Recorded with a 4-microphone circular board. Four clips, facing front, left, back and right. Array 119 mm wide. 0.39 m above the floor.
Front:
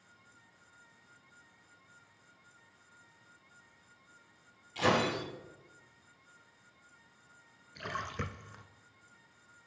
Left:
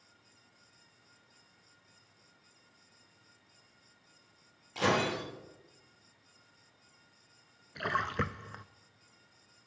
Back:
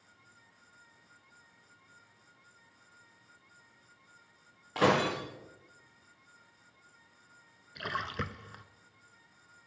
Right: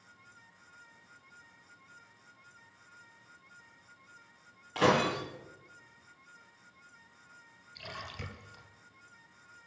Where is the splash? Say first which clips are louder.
Left 12 dB, back 3 dB; 105° left, 0.7 m.